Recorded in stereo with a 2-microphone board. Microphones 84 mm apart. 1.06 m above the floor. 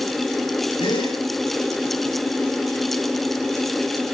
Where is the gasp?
85° left, 8 m.